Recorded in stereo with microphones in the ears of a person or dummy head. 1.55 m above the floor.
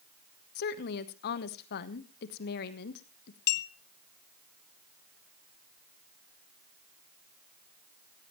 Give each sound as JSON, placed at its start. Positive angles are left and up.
{"t": 0.6, "sound": "a woman speaking", "side_deg": 60, "distance_m": 1.2}
{"t": 3.5, "sound": "a clink", "side_deg": 60, "distance_m": 1.1}